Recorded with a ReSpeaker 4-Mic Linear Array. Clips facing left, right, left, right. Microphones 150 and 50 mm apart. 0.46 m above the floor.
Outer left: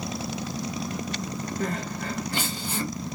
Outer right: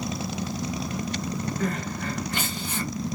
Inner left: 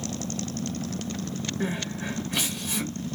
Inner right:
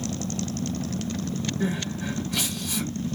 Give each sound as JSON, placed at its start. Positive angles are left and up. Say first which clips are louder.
{"t": 1.6, "sound": "crying", "louder": "outer right 1 dB, even", "side_deg": 35, "distance_m": 1.4}